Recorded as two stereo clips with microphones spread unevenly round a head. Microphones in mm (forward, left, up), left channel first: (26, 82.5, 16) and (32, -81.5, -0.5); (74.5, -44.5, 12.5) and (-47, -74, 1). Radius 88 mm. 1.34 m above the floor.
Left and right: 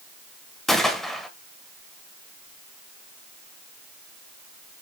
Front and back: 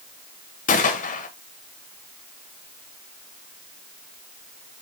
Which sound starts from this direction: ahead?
A gunshot, at 0.7 s.